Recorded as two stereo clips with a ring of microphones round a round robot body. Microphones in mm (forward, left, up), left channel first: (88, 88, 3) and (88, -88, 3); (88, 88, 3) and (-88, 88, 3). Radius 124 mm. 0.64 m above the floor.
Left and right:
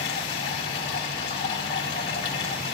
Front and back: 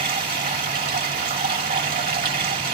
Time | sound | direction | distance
0.0 | running water | 155° left | 2.5 m